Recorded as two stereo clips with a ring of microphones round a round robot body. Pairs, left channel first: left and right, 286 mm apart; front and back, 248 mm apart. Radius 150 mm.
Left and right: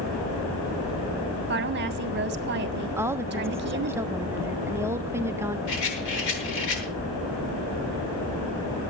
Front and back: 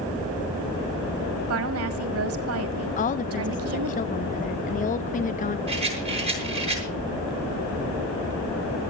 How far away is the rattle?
About 7.5 m.